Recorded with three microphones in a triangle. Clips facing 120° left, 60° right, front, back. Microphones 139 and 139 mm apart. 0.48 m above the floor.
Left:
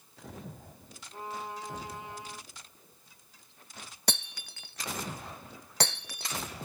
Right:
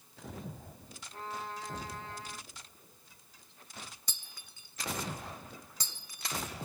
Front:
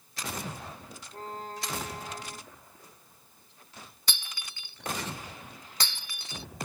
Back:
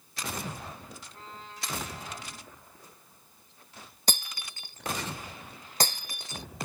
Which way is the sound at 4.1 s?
135° left.